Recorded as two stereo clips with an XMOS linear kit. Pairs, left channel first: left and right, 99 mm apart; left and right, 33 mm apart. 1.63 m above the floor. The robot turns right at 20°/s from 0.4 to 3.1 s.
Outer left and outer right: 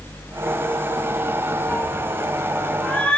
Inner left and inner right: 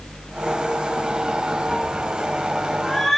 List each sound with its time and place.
1.7 s a cat meowing: 20° left (ahead or behind), 0.9 m; by 3.2 s 10° left (ahead or behind), 0.9 m